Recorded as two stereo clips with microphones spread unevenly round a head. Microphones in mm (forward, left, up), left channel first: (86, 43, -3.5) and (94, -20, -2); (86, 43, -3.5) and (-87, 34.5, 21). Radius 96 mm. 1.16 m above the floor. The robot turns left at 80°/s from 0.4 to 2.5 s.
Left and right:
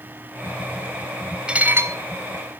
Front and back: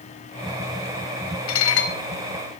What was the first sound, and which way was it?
Dishes clattering, 10° right.